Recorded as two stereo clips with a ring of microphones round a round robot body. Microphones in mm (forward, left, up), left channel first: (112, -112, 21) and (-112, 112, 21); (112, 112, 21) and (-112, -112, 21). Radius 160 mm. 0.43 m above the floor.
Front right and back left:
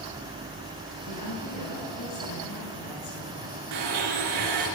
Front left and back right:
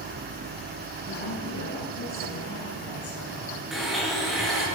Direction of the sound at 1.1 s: 10° right.